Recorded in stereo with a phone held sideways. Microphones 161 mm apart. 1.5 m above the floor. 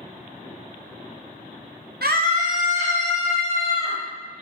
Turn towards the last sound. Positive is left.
turn(degrees=-35)  # may be behind; listen again after turning